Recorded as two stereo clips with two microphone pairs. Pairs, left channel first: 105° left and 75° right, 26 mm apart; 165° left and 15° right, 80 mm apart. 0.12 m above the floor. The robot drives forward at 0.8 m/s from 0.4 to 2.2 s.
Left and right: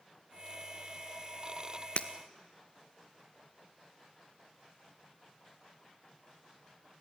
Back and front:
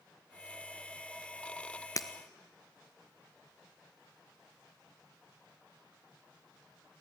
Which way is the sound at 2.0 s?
130° left.